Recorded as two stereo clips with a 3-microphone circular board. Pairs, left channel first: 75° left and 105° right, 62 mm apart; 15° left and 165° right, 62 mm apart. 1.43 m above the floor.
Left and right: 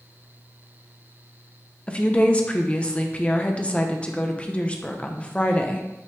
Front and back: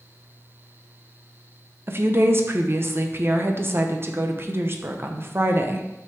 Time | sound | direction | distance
1.9 | a woman speaking | 145° left | 0.8 m